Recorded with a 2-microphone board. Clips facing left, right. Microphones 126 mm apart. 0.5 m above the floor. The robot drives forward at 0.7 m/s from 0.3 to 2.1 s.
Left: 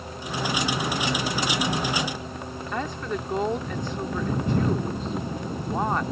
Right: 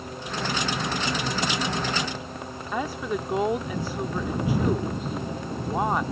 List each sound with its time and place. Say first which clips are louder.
2.7 s a woman speaking: right 2 dB; 5° right (ahead or behind)